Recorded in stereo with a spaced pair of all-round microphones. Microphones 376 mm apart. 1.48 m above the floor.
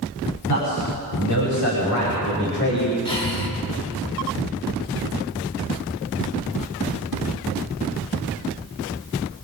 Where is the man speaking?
55° left (ahead or behind), 8 m; by 3.0 s 25° left (ahead or behind), 6.5 m.